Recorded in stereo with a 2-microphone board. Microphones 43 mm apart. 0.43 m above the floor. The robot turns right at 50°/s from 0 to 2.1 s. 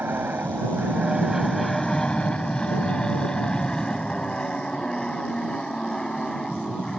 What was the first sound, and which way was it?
An aircraft, 60° right (ahead or behind).